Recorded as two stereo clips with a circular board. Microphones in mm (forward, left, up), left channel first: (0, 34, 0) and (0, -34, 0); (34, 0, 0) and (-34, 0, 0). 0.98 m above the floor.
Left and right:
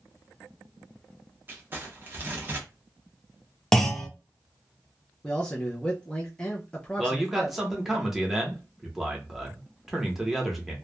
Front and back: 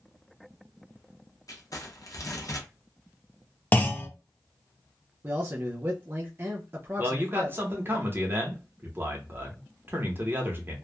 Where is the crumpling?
35° right, 0.8 m.